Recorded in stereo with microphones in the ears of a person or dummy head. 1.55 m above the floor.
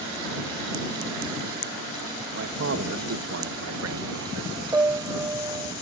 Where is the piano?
15° right (ahead or behind).